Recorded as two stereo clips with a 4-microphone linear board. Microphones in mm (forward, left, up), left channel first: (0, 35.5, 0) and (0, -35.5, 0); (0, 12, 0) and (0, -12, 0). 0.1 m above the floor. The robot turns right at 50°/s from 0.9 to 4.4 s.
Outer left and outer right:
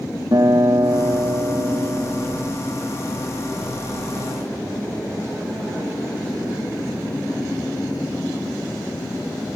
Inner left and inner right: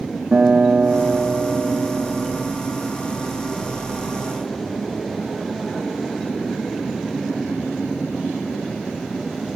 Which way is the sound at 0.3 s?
100° right.